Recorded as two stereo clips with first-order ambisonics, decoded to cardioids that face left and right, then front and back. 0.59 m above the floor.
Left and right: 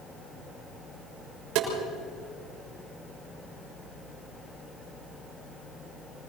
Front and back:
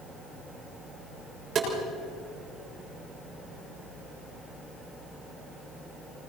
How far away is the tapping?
About 6.5 m.